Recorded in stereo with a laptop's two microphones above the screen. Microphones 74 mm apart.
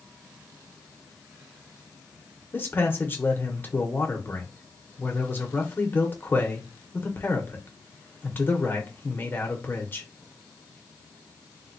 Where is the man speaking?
30° left (ahead or behind), 1.0 m.